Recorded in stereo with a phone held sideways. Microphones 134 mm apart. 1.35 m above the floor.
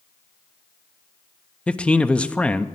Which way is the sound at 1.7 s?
10° left (ahead or behind).